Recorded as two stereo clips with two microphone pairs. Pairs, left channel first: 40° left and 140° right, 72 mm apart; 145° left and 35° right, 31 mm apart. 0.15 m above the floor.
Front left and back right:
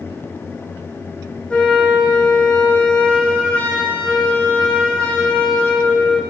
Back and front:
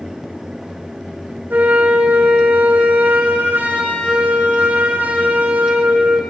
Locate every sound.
1.5 s a flute: 35° right, 6.5 m